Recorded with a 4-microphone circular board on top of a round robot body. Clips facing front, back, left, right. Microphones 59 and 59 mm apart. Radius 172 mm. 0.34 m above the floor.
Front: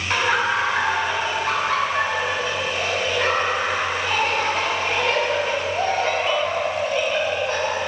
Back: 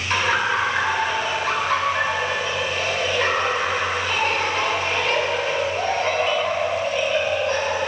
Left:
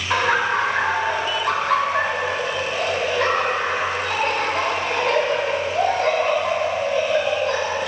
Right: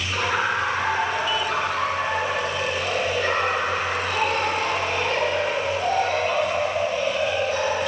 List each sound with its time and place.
0.1 s laughter: 75° left, 3.5 m